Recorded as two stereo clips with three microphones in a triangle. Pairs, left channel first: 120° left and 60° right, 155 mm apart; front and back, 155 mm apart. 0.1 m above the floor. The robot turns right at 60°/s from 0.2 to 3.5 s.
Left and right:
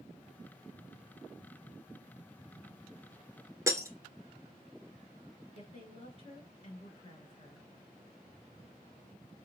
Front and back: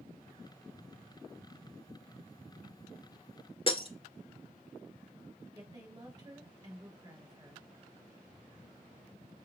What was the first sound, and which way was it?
Breaking glass, 5° right.